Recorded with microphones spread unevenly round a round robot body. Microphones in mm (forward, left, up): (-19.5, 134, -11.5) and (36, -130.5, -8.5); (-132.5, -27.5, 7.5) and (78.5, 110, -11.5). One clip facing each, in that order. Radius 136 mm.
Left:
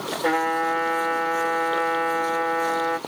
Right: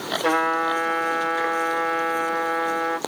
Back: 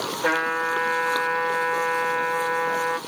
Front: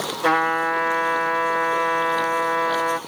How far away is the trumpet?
About 1.7 m.